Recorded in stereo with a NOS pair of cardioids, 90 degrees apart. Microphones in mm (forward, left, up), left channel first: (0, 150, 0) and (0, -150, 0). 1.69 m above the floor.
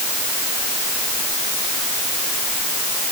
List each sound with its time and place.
Only background noise.